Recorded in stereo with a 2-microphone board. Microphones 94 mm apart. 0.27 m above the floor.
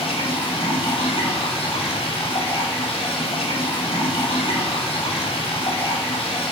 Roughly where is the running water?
Left.